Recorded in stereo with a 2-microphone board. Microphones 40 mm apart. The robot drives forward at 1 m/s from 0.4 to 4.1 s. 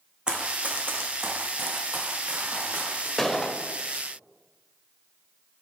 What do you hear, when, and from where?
0.3 s running footsteps: 25° right (ahead or behind), 1.3 m; by 3.1 s 45° right (ahead or behind), 3 m
3.2 s a gunshot: 10° left (ahead or behind), 0.7 m